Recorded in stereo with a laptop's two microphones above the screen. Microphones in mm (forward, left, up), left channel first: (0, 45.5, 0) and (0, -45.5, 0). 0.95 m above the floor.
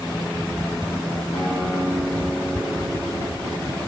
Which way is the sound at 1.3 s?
85° left.